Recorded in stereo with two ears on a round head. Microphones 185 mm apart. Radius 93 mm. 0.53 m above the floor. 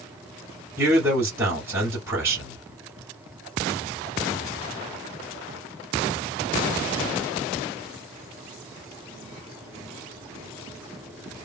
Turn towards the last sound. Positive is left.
turn(degrees=-10)  # may be behind; listen again after turning